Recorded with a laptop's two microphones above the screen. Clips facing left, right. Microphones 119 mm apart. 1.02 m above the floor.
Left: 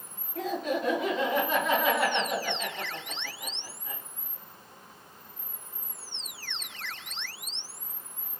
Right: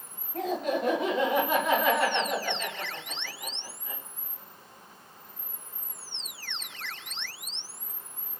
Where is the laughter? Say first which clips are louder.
Right 1 dB; 45° right (ahead or behind), 0.9 m; by 4.0 s 30° left (ahead or behind), 1.8 m.